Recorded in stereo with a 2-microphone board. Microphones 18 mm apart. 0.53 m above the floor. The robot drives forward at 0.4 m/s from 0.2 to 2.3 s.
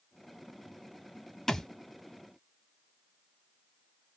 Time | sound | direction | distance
1.5 | a thud | 30° left (ahead or behind) | 0.9 m